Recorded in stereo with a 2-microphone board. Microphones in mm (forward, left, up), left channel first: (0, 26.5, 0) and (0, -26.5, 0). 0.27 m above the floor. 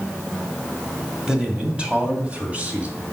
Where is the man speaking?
15° right (ahead or behind), 1.6 m; by 3.0 s 30° right (ahead or behind), 2.5 m.